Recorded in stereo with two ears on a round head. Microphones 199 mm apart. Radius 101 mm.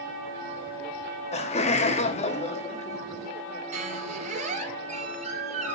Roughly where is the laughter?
Left.